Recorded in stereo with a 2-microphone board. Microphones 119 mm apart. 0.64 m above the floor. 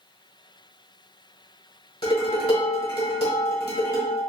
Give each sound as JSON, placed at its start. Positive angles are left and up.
{"t": 2.0, "sound": "dishes clattering", "side_deg": 50, "distance_m": 1.7}